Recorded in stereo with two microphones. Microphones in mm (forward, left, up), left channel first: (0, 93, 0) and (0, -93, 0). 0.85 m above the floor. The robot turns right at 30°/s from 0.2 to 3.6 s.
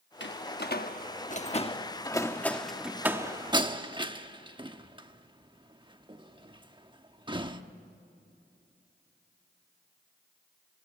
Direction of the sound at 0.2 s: 75° left (ahead or behind).